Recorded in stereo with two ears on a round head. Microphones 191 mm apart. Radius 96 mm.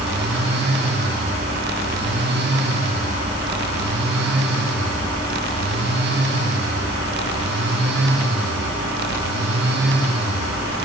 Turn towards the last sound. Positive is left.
No sound to turn to.